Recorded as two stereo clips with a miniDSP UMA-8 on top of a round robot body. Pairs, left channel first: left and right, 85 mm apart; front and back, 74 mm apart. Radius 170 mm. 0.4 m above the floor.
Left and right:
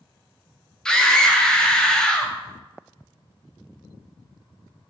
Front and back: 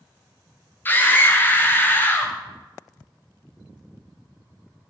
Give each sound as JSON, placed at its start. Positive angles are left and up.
{"t": 0.8, "sound": "a scream", "azimuth_deg": 20, "distance_m": 0.9}